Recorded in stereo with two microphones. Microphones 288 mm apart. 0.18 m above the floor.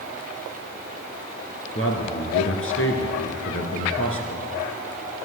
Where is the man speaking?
50° left (ahead or behind), 2 m.